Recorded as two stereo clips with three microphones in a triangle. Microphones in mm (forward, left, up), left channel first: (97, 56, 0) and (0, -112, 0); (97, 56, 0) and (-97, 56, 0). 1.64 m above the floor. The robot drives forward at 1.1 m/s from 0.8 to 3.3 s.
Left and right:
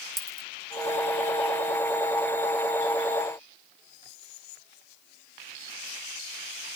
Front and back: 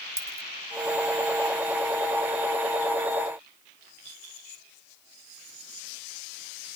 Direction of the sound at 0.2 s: 145° left.